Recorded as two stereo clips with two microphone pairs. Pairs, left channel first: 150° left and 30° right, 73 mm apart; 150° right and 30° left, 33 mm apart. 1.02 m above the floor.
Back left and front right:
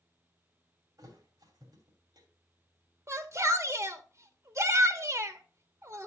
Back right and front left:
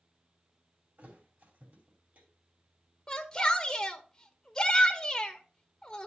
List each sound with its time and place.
1.0 s a thud: 5° left, 3 m
3.1 s a shout: 75° right, 0.8 m